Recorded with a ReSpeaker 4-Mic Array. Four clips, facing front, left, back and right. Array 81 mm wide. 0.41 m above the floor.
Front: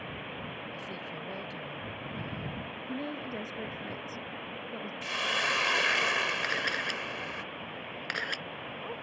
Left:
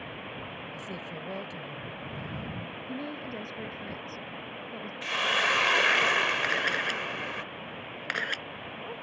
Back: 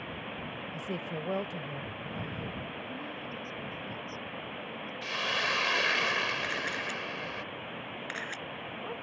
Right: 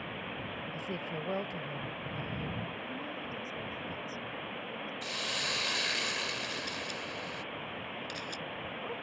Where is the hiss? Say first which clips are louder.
Left 14 dB, front 1 dB; 85° left.